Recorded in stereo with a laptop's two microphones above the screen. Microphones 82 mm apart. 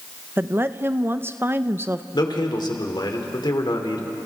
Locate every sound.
0.4 s a woman speaking: 25° right (ahead or behind), 0.5 m
2.1 s a man speaking: 65° left (ahead or behind), 2.5 m